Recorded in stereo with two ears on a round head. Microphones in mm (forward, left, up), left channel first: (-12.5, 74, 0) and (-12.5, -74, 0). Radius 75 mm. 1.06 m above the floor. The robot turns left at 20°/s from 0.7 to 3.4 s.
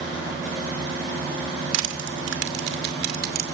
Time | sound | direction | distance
1.7 | crushing | 85° right | 2.5 m